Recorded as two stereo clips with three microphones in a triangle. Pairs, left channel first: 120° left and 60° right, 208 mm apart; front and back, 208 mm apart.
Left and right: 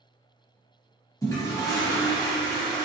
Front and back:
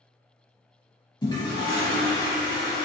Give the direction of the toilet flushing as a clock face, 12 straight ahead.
10 o'clock.